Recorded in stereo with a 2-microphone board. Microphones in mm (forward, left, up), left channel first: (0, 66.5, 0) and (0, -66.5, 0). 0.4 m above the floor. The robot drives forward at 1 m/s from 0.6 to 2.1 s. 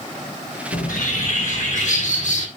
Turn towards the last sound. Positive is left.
turn(degrees=65)  # may be behind; listen again after turning